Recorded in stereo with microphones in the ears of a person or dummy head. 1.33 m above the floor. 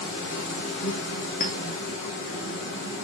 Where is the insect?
60° left (ahead or behind), 1.2 m.